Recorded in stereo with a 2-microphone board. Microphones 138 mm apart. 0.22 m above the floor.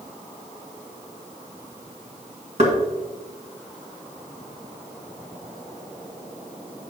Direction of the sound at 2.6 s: 55° right (ahead or behind).